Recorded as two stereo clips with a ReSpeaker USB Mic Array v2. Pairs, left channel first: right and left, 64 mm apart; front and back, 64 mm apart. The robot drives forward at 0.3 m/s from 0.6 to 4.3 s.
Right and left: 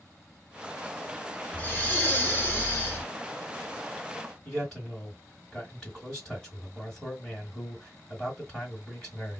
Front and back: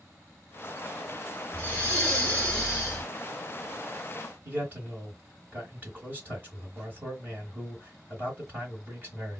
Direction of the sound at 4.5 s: 160° right.